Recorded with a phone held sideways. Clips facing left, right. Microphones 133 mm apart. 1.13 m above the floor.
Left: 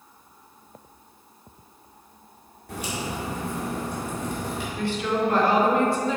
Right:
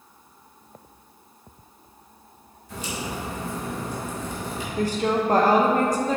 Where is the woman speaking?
40° right (ahead or behind), 0.9 m.